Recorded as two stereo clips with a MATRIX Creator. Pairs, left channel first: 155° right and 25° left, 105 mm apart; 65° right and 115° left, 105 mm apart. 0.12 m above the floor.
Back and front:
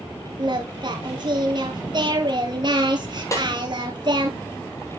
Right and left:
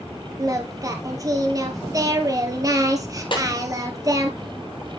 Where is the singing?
60° left, 1.5 m.